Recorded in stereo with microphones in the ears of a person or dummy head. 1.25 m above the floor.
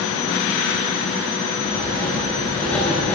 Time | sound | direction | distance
1.7 | writing | 15° left (ahead or behind) | 5 m